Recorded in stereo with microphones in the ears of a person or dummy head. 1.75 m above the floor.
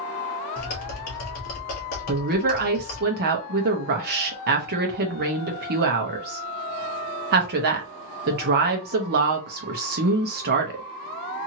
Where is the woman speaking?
50° right (ahead or behind), 0.8 m.